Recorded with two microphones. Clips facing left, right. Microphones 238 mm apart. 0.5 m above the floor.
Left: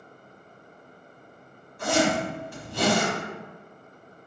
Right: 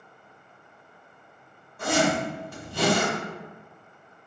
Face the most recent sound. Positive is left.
turn(degrees=-60)  # may be behind; listen again after turning